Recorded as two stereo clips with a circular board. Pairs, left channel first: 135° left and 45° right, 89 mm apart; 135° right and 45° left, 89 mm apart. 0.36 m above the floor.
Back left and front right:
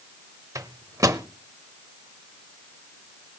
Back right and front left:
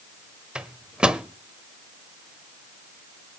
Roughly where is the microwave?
Ahead right.